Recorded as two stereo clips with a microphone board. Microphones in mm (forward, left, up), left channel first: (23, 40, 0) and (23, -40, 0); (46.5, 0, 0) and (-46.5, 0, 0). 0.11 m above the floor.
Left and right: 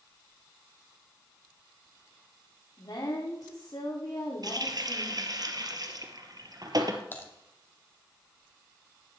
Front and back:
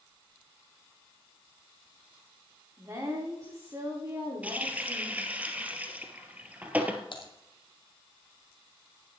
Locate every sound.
2.8 s a woman speaking: 125° left, 9 m
4.4 s a running tap: 110° right, 1.8 m
7.1 s typing on a keyboard: 25° left, 3 m